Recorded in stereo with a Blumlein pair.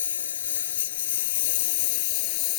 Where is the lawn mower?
65° left; by 2.6 s 45° left.